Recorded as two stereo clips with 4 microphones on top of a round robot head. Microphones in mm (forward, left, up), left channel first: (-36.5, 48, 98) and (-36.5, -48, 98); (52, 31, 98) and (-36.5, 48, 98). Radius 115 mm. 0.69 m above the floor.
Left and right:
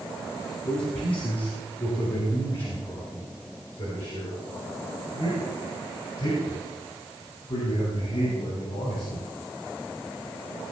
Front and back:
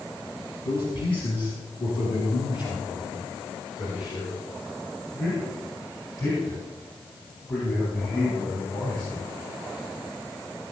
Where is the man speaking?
10° left, 8 m; by 9.3 s 50° left, 16 m.